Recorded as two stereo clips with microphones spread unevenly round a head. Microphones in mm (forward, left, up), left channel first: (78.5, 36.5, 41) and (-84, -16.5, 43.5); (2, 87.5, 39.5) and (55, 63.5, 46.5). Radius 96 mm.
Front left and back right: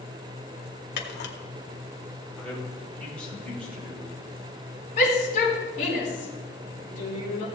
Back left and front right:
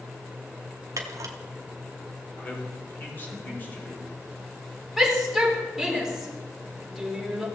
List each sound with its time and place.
1.0 s a camera shutter: 5° right, 1.4 m
2.4 s a man speaking: 100° left, 4.5 m
5.0 s a shout: 65° left, 4.5 m